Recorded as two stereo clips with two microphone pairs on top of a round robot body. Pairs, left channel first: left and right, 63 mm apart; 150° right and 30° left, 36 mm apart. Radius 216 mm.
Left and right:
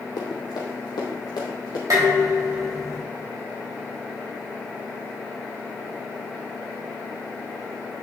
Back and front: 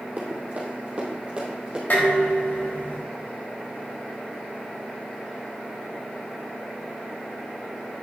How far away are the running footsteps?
About 2.5 m.